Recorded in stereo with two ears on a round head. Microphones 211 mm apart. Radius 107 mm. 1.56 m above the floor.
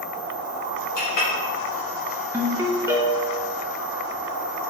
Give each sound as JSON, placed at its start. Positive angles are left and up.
{"t": 1.0, "sound": "a clink", "side_deg": 70, "distance_m": 2.0}
{"t": 2.3, "sound": "a ringtone", "side_deg": -10, "distance_m": 0.8}